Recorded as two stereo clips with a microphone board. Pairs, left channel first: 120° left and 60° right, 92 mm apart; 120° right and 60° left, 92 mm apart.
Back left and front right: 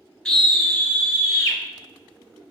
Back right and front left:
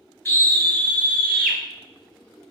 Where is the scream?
165° right, 1.6 m; by 1.6 s 160° left, 1.8 m.